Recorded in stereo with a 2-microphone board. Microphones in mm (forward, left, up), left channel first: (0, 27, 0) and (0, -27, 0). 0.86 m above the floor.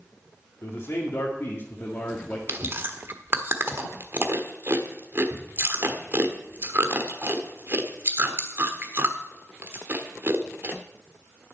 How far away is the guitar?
No guitar in this recording.